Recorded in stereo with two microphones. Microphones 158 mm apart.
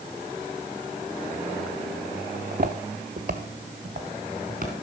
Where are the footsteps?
50° right (ahead or behind), 0.8 m.